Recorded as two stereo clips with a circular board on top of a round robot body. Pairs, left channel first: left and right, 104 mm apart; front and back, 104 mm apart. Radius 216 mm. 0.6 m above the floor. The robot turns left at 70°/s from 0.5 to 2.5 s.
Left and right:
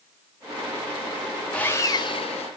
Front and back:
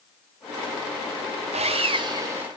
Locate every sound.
1.5 s sawing: 170° left, 1.1 m; by 2.5 s 105° left, 1.1 m